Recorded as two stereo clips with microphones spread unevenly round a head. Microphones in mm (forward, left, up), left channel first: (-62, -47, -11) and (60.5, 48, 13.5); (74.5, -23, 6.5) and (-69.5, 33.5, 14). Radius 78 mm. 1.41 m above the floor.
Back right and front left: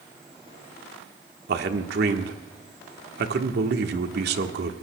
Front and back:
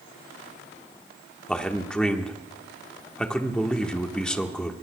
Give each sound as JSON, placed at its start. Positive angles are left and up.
{"t": 1.5, "sound": "a man speaking", "azimuth_deg": 60, "distance_m": 1.4}